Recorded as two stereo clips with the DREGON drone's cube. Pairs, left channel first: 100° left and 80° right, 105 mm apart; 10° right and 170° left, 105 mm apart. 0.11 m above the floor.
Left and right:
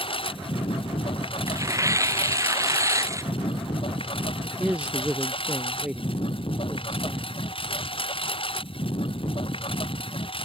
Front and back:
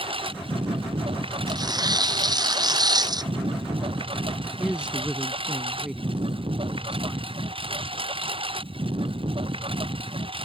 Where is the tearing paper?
140° right.